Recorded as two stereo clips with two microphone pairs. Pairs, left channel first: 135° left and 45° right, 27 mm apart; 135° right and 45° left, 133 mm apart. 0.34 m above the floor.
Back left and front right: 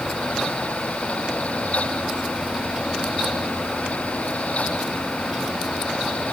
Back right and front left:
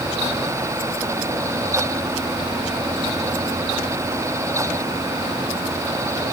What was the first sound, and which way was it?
Only background noise.